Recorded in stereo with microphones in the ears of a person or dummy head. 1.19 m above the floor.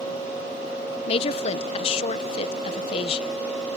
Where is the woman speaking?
30° left (ahead or behind).